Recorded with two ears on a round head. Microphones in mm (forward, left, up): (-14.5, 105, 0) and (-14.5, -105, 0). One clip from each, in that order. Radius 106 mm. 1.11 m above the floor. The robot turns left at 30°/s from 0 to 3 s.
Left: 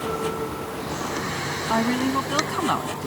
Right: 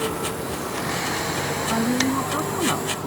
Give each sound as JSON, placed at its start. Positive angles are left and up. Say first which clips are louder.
{"t": 1.7, "sound": "a woman speaking", "louder": "left 2 dB", "azimuth_deg": 85}